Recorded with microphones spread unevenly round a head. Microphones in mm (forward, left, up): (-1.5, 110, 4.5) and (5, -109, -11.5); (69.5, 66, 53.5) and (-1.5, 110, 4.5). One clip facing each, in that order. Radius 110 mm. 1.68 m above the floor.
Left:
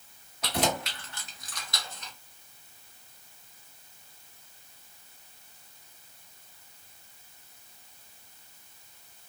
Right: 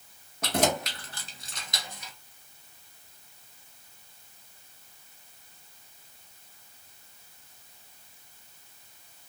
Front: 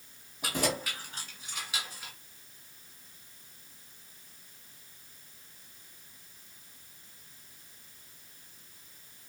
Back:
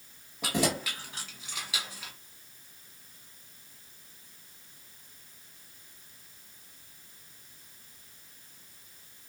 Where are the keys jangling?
130° right, 1.4 m; by 2.1 s 175° right, 1.0 m.